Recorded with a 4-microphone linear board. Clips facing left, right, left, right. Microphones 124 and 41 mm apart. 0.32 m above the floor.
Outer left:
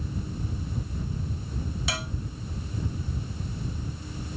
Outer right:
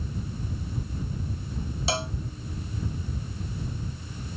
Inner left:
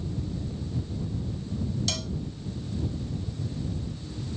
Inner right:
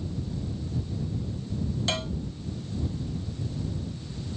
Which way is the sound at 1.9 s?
30° right (ahead or behind).